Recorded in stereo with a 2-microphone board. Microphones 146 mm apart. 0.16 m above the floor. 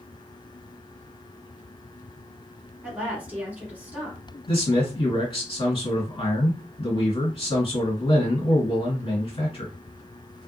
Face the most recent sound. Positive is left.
turn(degrees=40)  # may be behind; listen again after turning